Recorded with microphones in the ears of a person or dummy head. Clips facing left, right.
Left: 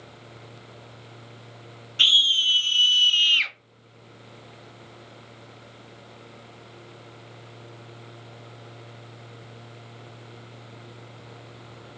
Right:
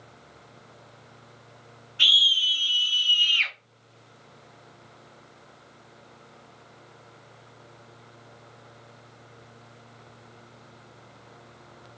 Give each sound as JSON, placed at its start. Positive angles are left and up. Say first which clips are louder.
{"t": 2.0, "sound": "a scream", "louder": "right 3 dB", "side_deg": 60, "distance_m": 1.4}